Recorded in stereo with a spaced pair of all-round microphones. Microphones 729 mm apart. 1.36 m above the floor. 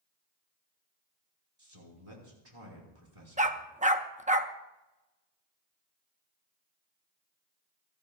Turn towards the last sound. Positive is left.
turn(degrees=-10)  # may be behind; listen again after turning